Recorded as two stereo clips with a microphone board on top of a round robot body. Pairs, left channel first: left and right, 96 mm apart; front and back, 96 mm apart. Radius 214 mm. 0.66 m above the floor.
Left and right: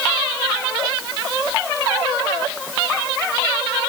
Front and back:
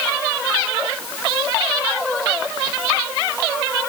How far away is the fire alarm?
No fire alarm in this recording.